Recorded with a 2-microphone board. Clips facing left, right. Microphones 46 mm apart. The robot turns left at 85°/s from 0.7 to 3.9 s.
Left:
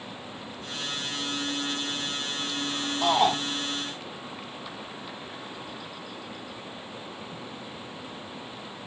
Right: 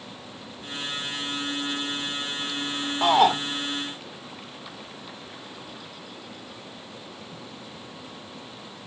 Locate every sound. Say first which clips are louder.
3.0 s a shout: right 4 dB; 45° right (ahead or behind), 0.8 m; by 3.4 s 55° right (ahead or behind), 0.8 m